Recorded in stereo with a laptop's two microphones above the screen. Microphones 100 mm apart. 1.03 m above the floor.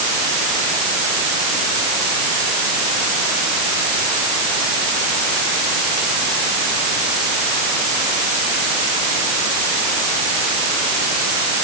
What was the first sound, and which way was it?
Only background noise.